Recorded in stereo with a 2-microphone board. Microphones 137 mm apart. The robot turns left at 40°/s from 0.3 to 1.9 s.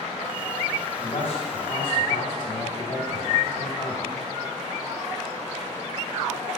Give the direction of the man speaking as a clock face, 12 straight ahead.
9 o'clock.